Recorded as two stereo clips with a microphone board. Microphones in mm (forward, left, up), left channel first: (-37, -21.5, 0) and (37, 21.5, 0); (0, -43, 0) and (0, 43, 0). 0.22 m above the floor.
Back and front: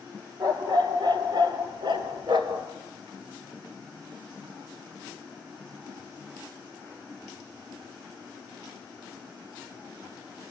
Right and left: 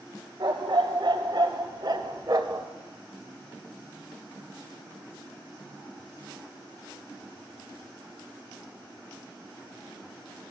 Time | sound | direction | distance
0.4 | a dog barking | 65° left | 2.5 m